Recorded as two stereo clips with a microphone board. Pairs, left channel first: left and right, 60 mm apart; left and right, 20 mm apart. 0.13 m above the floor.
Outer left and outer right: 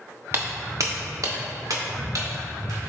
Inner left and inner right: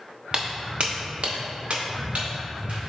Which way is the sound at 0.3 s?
40° right (ahead or behind).